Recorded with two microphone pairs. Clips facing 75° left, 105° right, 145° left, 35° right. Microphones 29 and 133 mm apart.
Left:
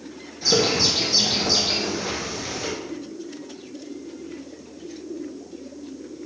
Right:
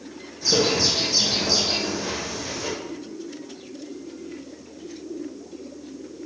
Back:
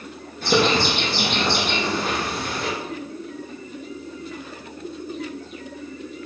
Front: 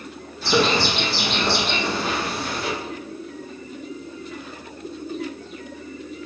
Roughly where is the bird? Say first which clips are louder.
Left 1 dB, back 1 dB; behind left.